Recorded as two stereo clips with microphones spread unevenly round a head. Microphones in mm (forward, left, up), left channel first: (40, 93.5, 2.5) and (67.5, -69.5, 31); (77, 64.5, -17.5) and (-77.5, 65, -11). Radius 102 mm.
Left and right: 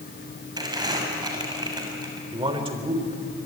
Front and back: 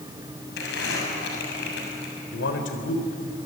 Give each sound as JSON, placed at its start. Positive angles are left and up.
{"t": 0.6, "sound": "crumpling", "azimuth_deg": -15, "distance_m": 6.5}
{"t": 2.3, "sound": "a man speaking", "azimuth_deg": -20, "distance_m": 3.5}